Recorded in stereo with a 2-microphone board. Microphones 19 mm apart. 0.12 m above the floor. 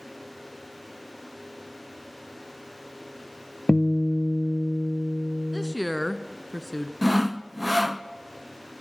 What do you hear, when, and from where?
3.7 s a guitar: 30° left (ahead or behind), 0.9 m
5.5 s a woman speaking: 5° right (ahead or behind), 1.2 m
7.0 s sawing: 20° right (ahead or behind), 0.7 m